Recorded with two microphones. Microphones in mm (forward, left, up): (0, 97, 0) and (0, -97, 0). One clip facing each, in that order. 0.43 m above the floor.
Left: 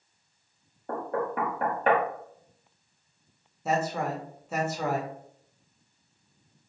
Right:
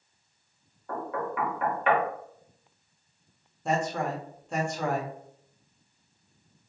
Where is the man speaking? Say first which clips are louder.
Even; 5° left (ahead or behind), 0.8 m.